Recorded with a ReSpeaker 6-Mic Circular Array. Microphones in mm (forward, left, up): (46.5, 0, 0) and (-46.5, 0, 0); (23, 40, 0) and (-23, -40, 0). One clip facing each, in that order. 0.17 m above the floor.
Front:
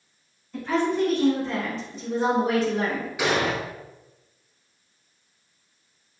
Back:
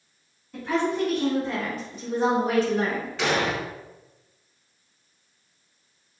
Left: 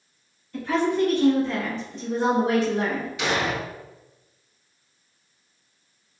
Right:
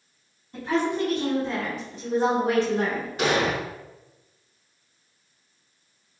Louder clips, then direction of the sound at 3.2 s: Front 1 dB, right 3 dB; 75° right.